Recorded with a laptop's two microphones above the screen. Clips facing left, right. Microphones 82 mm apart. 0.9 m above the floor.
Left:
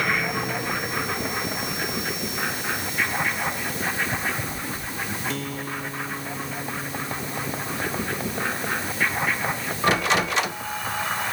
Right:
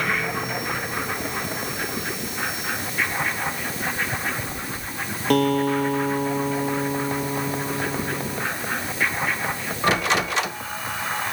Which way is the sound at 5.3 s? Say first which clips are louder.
Right 12 dB; 60° right (ahead or behind).